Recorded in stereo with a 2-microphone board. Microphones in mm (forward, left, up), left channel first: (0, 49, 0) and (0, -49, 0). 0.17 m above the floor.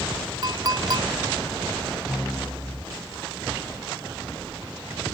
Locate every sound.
0.4 s a clink: 45° right (ahead or behind)